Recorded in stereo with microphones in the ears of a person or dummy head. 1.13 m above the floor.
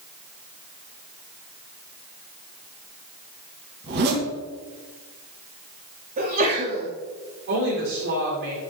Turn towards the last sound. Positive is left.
turn(degrees=-70)  # may be behind; listen again after turning